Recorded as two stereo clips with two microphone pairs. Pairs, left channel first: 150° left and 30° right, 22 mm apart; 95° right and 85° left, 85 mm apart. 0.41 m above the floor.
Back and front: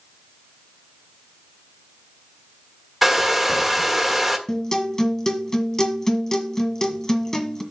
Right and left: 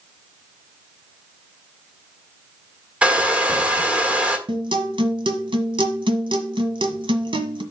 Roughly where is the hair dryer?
Ahead left.